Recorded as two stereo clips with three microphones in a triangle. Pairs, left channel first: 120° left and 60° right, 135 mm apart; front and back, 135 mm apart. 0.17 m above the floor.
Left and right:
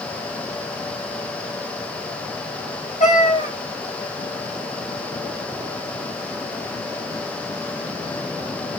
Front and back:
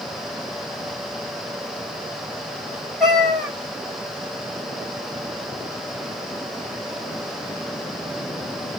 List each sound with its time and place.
3.0 s a cat meowing: 90° left, 1.6 m